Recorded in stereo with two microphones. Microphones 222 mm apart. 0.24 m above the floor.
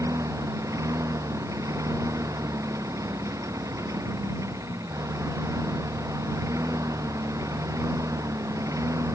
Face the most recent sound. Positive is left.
turn(degrees=-15)  # may be behind; listen again after turning